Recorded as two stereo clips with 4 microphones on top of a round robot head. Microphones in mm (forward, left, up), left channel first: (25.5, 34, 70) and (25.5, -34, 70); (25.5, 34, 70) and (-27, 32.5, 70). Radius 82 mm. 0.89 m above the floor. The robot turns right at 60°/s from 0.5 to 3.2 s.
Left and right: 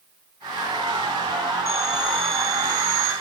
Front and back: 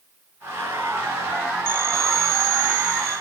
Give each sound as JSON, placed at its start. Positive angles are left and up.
{"t": 1.7, "sound": "a phone ringing", "azimuth_deg": 135, "distance_m": 9.5}